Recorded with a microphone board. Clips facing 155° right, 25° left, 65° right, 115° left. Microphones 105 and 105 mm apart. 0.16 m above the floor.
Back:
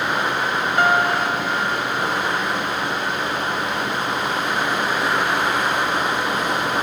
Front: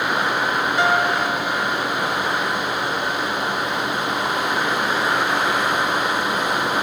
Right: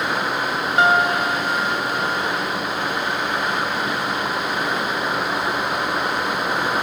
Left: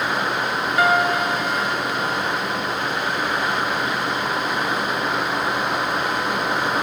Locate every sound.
0.8 s a piano: 130° right, 0.7 m